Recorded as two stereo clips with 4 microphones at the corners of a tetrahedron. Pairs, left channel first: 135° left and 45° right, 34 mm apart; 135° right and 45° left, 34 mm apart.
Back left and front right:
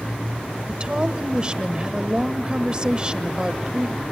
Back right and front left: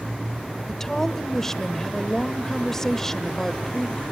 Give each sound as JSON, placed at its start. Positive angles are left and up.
{"t": 0.7, "sound": "a woman speaking", "azimuth_deg": -75, "distance_m": 1.1}